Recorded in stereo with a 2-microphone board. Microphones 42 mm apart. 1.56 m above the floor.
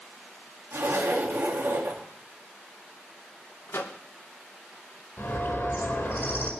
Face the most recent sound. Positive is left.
turn(degrees=60)  # may be behind; listen again after turning